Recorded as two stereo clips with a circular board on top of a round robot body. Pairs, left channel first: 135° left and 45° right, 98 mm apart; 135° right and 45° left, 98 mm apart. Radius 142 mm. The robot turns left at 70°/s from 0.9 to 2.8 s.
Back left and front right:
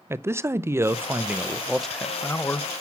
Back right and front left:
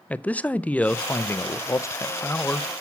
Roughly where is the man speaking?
Right.